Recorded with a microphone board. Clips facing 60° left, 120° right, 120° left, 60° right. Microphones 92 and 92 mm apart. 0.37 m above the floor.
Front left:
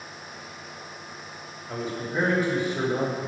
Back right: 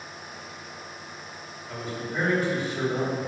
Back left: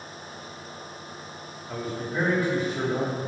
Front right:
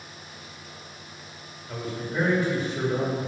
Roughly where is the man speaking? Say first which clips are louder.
Front left 3 dB, back left 1 dB; ahead left.